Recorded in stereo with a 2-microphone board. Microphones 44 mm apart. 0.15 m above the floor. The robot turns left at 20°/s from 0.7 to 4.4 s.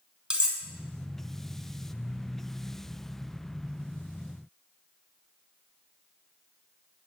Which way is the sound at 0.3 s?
15° right (ahead or behind).